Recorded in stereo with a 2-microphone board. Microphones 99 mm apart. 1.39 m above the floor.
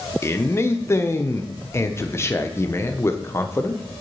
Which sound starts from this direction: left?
A man speaking, at 0.2 s.